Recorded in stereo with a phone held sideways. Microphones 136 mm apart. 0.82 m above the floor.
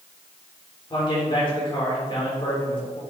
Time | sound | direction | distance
0.9 | a man speaking | 40° left (ahead or behind) | 3 m